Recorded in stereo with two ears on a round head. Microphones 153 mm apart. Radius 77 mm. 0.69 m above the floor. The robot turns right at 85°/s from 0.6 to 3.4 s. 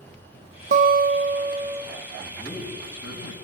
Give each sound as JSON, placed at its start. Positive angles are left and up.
{"t": 0.7, "sound": "a guitar", "azimuth_deg": -110, "distance_m": 0.9}
{"t": 2.2, "sound": "a man speaking", "azimuth_deg": -5, "distance_m": 6.0}